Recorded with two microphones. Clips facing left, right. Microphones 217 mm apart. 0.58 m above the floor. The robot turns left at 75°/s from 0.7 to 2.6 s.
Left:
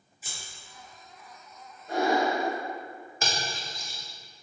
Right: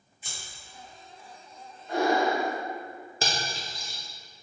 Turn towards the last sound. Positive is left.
turn(degrees=-35)  # may be behind; listen again after turning